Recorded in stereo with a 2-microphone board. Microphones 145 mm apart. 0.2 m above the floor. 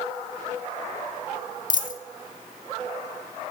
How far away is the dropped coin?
About 0.5 m.